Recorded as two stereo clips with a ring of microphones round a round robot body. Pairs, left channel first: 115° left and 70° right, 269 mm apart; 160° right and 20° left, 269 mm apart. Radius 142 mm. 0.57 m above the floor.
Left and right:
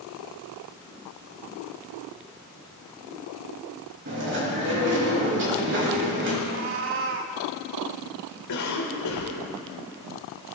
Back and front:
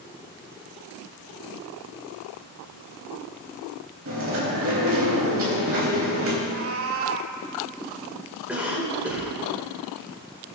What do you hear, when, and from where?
4.0 s chewing: 20° right, 4 m
6.4 s a cat meowing: 20° right, 0.9 m
8.5 s a cough: 110° left, 3 m